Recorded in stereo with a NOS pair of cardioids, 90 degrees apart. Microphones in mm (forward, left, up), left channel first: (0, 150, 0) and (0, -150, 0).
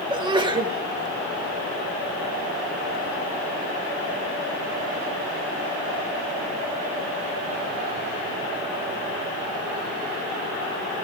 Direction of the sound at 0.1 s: 15° right.